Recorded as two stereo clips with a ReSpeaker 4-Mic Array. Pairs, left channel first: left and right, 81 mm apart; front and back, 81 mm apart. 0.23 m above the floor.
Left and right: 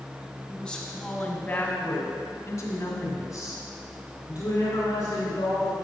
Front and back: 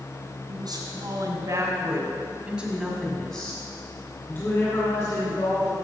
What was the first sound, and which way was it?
A woman speaking, 175° left.